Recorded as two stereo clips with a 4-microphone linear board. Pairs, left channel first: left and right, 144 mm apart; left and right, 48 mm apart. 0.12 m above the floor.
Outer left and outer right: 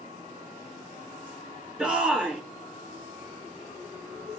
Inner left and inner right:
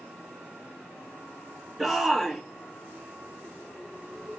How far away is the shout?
About 1.8 m.